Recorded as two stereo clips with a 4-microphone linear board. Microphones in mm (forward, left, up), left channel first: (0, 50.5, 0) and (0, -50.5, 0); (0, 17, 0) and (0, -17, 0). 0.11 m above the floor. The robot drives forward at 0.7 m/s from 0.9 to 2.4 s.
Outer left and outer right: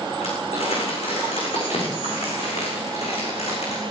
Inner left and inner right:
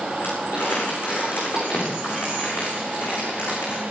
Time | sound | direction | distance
0.2 | crumpling | 70° left (ahead or behind) | 7 m